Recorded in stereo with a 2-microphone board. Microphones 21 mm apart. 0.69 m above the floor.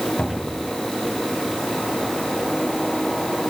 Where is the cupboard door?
75° left (ahead or behind), 3 m.